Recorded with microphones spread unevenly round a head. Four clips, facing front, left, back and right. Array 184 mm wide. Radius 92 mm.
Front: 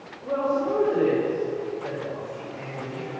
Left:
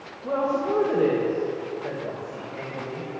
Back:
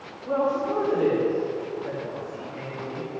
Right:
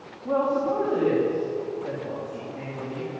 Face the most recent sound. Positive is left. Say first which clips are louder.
# right 1 dB, even
turn(degrees=70)